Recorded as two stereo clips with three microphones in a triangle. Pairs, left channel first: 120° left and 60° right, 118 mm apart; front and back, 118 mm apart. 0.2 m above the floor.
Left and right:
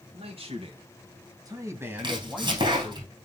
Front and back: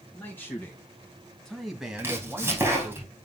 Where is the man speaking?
70° right, 3 m; by 3.0 s 155° left, 1.7 m.